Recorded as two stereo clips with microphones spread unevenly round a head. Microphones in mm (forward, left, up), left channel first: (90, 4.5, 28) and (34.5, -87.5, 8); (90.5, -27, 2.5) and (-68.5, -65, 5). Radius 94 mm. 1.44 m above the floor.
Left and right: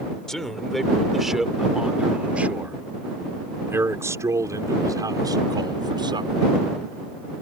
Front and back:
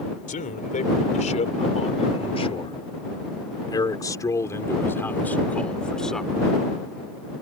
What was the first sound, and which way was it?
A man speaking, 25° right.